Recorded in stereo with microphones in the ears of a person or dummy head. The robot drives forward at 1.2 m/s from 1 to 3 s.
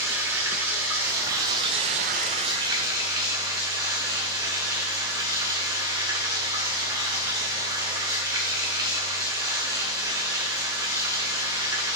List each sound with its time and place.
0.0 s running water: 15° right (ahead or behind), 1.4 m